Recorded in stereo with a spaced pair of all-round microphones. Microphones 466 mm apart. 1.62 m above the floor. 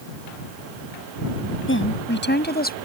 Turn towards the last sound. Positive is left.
turn(degrees=20)  # may be behind; listen again after turning